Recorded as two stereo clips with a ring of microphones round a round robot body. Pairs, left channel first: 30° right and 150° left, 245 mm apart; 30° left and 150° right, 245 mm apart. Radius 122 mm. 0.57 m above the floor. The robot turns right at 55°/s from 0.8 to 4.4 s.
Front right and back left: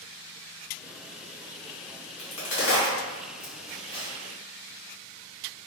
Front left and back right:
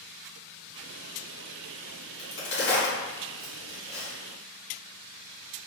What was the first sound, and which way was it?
A crack, 40° right.